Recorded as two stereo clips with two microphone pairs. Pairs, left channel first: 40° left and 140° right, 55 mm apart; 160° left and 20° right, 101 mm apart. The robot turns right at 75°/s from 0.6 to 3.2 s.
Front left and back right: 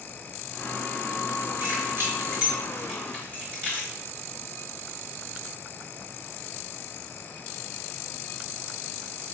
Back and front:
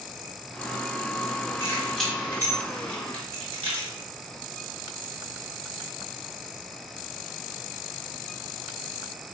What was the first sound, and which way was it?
Keys jangling, 140° right.